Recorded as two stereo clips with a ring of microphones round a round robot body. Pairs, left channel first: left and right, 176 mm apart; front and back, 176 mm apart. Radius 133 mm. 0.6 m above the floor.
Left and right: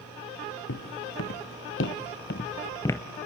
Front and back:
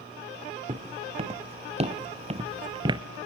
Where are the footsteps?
125° left, 2.5 m; by 3.0 s 175° left, 0.6 m.